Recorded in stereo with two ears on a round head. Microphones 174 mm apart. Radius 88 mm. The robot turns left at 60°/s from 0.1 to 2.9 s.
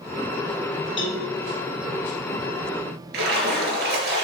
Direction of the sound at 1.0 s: 25° left (ahead or behind).